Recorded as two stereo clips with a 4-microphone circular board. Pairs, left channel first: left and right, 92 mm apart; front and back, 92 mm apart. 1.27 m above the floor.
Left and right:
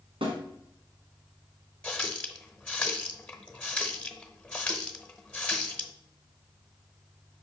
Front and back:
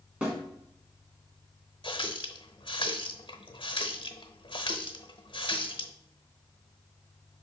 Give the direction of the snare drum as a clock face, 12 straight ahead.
4 o'clock.